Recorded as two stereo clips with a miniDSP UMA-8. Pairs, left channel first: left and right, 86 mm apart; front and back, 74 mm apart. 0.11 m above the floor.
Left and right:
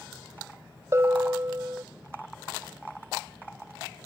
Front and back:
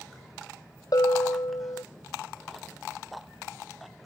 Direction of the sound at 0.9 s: 35° right.